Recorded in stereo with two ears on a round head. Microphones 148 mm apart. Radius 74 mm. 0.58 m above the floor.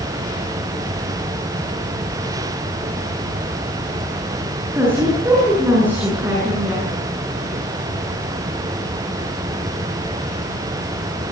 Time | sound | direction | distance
4.8 | a woman speaking | 15° right (ahead or behind) | 8.5 m